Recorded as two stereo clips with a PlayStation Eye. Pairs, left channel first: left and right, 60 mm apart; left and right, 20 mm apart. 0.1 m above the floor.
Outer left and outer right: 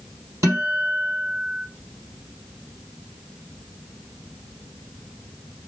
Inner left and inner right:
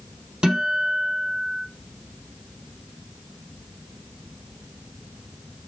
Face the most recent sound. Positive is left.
turn(degrees=-60)  # may be behind; listen again after turning